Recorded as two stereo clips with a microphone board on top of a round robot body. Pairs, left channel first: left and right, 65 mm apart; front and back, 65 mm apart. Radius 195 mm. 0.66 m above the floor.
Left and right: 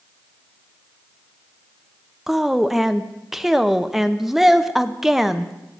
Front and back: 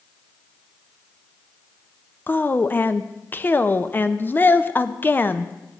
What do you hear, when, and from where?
2.3 s a woman speaking: 10° right, 0.8 m